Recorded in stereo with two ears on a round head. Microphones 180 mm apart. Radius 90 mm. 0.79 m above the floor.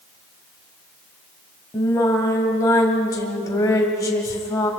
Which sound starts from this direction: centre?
Singing, at 1.7 s.